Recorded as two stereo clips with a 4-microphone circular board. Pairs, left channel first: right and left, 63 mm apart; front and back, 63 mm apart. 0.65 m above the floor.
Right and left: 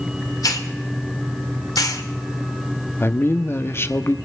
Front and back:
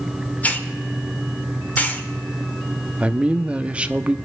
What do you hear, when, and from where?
0.4 s a hiss: 65° right, 1.2 m
3.0 s a man speaking: 115° right, 0.7 m